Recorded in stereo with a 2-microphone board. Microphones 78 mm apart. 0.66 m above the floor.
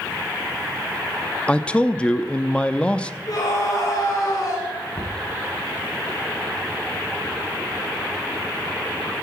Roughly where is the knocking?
Left.